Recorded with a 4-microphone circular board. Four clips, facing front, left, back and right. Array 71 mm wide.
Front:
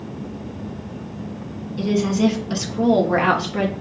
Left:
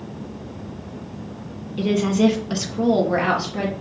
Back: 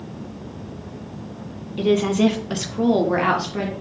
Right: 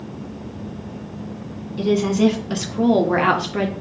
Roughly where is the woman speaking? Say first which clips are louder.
Right 1 dB, back 1 dB; behind.